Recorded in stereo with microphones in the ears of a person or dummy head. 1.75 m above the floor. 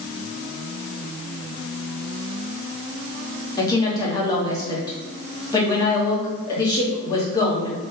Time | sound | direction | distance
3.6 | a woman speaking | 25° left (ahead or behind) | 1.1 m